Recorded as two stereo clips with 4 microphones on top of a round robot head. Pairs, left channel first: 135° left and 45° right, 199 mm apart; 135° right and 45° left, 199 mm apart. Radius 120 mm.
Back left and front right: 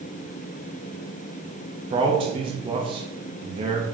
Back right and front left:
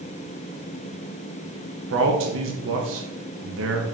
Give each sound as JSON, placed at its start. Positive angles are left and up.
{"t": 1.9, "sound": "a man speaking", "azimuth_deg": 20, "distance_m": 0.7}